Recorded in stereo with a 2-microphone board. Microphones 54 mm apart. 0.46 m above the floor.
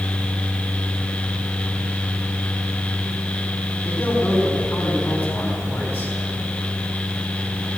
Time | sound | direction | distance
3.9 | a man speaking | 35° left (ahead or behind) | 5.5 m